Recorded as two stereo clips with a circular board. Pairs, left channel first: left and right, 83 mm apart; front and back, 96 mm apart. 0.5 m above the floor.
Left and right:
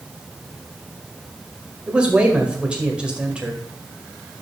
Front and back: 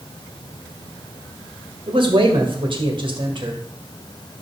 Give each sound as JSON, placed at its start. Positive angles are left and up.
{"t": 1.9, "sound": "a man speaking", "azimuth_deg": -165, "distance_m": 2.0}